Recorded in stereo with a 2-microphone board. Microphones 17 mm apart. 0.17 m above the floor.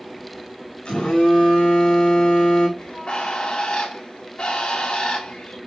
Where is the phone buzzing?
75° left (ahead or behind), 4.5 m.